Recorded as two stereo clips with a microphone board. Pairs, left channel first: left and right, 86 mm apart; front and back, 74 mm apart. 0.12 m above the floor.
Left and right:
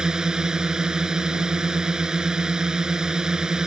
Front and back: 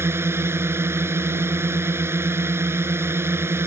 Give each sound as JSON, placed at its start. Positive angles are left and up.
{"t": 0.0, "sound": "a drone", "azimuth_deg": -165}